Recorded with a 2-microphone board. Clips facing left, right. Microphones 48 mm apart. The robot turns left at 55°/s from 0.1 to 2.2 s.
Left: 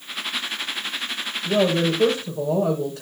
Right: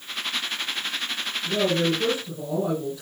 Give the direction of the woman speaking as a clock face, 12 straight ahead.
8 o'clock.